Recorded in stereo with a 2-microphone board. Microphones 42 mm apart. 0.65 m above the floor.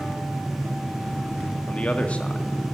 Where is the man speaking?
35° left (ahead or behind), 1.4 m.